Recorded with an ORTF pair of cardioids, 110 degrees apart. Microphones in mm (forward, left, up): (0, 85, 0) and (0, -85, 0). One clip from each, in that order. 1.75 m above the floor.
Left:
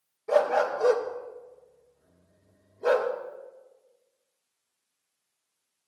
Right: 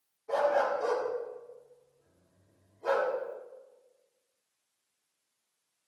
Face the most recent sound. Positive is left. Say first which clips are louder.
# left 4 dB
turn(degrees=70)